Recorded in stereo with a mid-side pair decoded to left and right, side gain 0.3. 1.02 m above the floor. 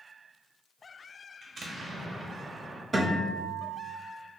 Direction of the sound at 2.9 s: 50° right.